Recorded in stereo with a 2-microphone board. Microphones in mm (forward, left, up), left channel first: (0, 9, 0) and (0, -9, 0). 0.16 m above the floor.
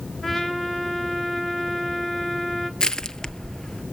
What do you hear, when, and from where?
0.2 s a trumpet: 25° left (ahead or behind), 2.5 m
2.8 s crushing: 40° left (ahead or behind), 0.7 m